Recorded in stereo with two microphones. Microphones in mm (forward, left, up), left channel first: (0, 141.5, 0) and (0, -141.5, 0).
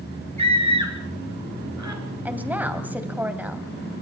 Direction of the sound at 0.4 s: 75° right (ahead or behind).